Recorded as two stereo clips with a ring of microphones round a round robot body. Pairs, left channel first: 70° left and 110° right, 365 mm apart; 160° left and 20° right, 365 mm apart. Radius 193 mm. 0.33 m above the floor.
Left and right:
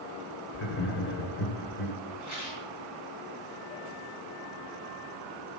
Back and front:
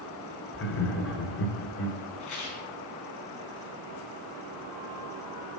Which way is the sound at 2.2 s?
115° left.